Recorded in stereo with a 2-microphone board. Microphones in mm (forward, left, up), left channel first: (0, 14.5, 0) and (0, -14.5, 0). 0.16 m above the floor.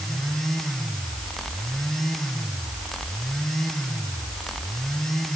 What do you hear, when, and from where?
Only background noise.